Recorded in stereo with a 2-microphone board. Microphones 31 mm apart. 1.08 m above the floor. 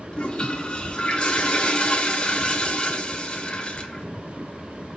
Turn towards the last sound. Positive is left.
turn(degrees=30)  # may be behind; listen again after turning